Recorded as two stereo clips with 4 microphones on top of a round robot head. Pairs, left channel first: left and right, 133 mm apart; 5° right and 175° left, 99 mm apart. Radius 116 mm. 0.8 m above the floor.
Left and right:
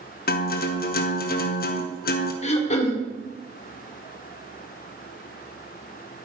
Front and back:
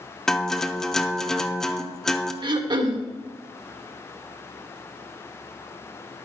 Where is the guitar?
80° left, 0.9 m.